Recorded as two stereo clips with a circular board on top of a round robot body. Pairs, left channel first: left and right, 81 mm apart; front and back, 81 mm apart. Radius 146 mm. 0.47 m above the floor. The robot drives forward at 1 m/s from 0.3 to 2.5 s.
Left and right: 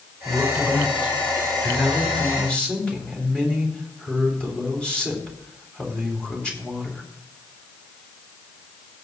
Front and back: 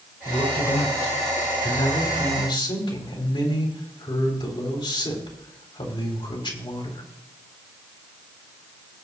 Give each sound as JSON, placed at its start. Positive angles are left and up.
{"t": 0.2, "sound": "a man speaking", "azimuth_deg": 5, "distance_m": 5.5}